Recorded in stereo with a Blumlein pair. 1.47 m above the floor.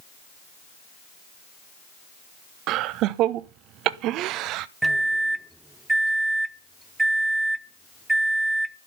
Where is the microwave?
5° right, 0.8 m.